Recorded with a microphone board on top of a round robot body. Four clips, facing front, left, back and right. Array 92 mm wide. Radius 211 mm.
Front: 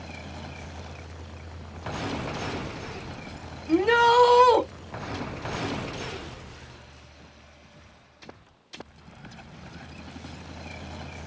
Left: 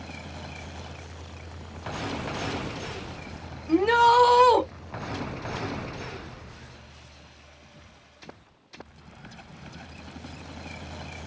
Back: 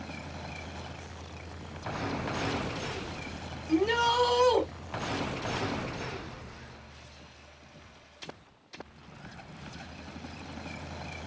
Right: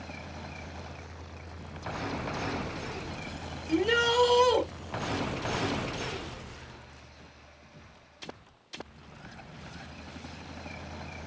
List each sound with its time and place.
3.7 s a shout: 40° left, 2.5 m